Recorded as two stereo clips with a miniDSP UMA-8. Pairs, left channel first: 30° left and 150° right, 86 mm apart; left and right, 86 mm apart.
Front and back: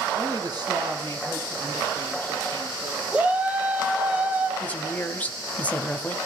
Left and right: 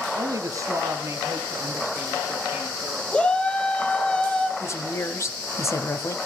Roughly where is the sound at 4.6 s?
Left.